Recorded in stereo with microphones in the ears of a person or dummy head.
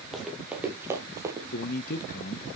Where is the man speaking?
50° left (ahead or behind), 1.2 m.